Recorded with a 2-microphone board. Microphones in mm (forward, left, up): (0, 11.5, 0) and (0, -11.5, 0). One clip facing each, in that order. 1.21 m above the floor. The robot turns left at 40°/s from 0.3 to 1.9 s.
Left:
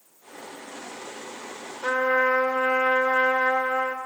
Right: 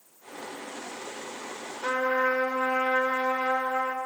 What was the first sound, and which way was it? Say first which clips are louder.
A trumpet: left 4 dB; 40° left (ahead or behind).